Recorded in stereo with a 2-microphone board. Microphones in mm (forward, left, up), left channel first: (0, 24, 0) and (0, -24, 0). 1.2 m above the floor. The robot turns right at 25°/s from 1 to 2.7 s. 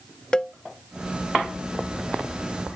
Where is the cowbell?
20° left (ahead or behind).